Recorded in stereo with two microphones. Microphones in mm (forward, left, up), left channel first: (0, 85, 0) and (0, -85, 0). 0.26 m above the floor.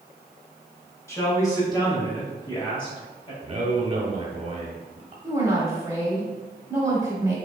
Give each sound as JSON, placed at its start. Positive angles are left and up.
{"t": 1.1, "sound": "a man speaking", "side_deg": 20, "distance_m": 1.7}
{"t": 3.4, "sound": "a man speaking", "side_deg": -35, "distance_m": 1.1}
{"t": 5.2, "sound": "a woman speaking", "side_deg": -20, "distance_m": 1.0}